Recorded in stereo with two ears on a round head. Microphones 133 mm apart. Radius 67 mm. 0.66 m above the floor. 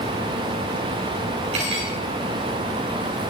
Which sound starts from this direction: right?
Cutlery clinking, at 1.5 s.